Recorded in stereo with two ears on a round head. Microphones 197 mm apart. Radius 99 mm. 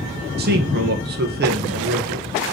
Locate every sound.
0.4 s a man speaking: 50° right (ahead or behind), 1.9 m